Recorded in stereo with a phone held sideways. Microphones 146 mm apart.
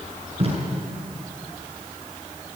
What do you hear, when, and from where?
0.4 s tape being pulled: 45° right (ahead or behind), 7.5 m